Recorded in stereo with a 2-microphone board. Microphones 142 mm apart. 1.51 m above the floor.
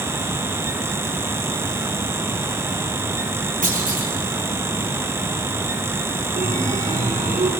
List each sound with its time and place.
3.6 s a clunk: 75° right (ahead or behind), 4.5 m
6.3 s a chime: 65° right (ahead or behind), 2.5 m